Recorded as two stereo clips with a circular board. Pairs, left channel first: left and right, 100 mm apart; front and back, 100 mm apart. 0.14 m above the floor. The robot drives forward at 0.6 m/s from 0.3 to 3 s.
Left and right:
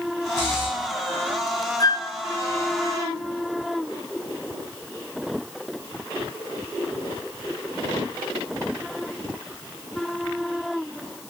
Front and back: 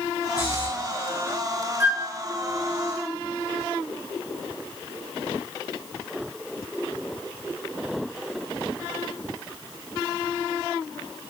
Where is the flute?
115° left, 1.4 m; by 2.2 s 125° left, 1.4 m.